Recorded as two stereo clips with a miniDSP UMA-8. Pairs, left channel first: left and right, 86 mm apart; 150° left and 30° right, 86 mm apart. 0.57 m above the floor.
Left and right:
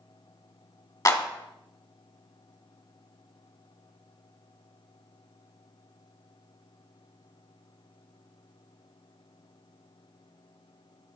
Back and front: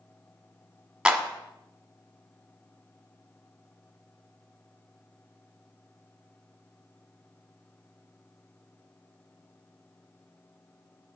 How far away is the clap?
About 1.3 m.